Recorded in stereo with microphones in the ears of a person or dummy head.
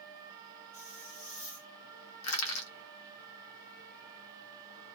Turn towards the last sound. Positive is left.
turn(degrees=85)